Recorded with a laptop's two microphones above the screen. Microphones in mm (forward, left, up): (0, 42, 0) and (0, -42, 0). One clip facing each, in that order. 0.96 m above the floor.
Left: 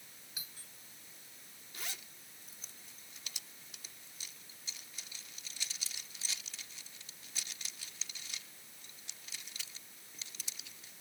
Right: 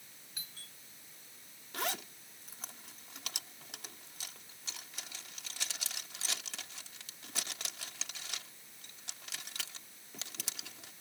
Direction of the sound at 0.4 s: 10° left (ahead or behind).